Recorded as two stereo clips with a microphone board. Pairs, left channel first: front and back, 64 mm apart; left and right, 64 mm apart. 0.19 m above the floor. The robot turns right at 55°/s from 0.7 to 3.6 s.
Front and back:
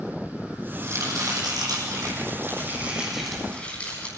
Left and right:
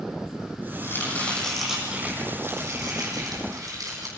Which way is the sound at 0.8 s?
135° left.